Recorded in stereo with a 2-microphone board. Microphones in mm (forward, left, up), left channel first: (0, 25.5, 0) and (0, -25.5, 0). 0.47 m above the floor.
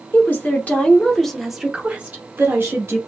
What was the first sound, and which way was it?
A woman speaking, 45° left (ahead or behind).